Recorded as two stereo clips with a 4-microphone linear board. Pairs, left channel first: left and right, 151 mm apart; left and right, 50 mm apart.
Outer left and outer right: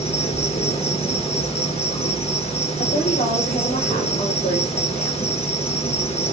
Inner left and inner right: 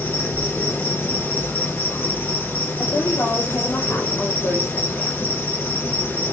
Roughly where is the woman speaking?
Left.